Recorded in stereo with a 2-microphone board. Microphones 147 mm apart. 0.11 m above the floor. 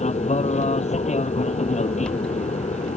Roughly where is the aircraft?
Left.